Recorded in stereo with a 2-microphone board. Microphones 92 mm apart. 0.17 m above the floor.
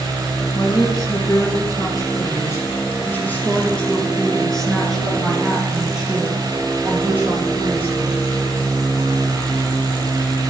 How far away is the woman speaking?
About 3 m.